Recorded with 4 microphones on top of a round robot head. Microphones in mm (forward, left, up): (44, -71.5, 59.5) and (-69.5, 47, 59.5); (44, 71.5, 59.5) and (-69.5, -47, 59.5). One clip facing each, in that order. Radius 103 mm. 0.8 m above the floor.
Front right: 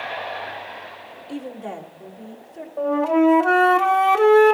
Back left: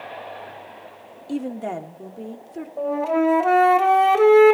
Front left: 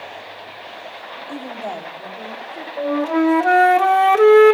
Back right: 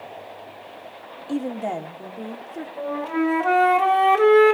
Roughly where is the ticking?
I don't hear ticking.